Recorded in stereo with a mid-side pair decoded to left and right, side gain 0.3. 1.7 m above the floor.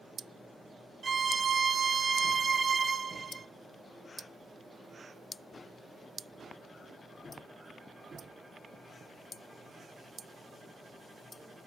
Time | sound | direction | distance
1.0 | a violin | 50° right | 0.6 m